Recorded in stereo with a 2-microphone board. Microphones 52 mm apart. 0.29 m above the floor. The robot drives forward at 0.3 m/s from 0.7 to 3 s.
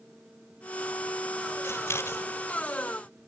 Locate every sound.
1.6 s scissors: 65° left (ahead or behind), 1.7 m; by 2.2 s 60° left (ahead or behind), 1.7 m